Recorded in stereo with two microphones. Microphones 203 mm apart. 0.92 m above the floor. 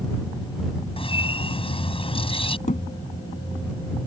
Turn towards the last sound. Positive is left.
turn(degrees=35)  # may be behind; listen again after turning